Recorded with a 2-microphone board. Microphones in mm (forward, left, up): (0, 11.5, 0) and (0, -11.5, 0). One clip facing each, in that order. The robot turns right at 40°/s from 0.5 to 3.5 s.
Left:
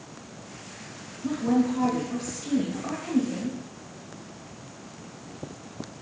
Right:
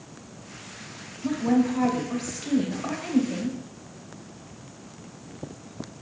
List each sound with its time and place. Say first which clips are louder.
1.2 s a woman speaking: right 1 dB; 20° right (ahead or behind), 1.2 m